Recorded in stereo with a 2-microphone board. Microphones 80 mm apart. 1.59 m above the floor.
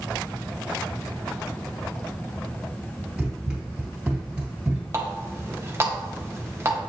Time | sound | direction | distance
3.2 | running footsteps | 15° right (ahead or behind) | 1.6 m
4.9 | a running tap | 30° right (ahead or behind) | 0.7 m